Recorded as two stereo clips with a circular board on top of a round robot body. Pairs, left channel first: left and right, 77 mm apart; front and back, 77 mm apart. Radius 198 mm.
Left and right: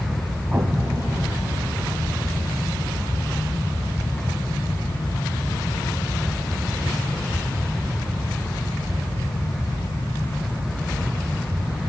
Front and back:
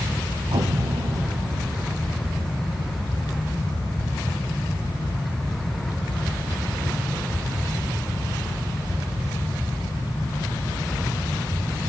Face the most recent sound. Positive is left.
turn(degrees=-160)